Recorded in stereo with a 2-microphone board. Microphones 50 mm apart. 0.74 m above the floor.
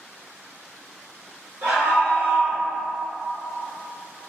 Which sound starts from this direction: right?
A scream, at 1.6 s.